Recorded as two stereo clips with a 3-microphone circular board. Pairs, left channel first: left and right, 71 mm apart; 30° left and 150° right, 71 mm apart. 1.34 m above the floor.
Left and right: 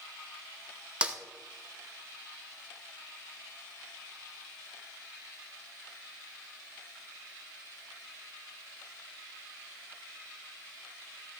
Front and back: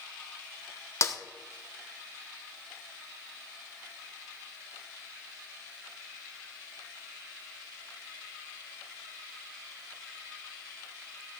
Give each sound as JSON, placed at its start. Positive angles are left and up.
{"t": 1.0, "sound": "a snare drum", "azimuth_deg": -15, "distance_m": 0.9}